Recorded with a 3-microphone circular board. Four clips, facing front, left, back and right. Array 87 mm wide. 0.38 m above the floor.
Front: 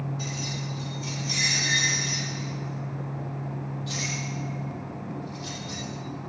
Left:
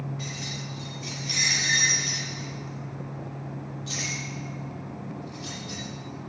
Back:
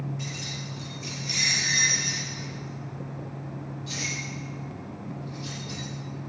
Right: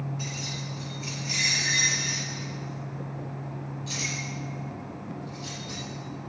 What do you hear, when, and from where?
0.2 s keys jangling: 110° left, 4.5 m; by 5.8 s 90° left, 8.5 m